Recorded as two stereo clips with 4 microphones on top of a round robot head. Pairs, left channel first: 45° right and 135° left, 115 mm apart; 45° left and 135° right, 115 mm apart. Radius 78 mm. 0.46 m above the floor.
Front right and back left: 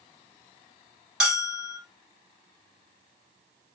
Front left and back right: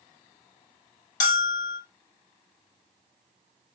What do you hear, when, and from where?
1.2 s a bell: 55° left, 1.1 m